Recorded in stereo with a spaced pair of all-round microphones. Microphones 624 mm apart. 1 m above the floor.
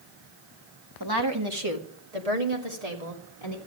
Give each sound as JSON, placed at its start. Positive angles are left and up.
{"t": 1.0, "sound": "a woman speaking", "side_deg": -35, "distance_m": 2.0}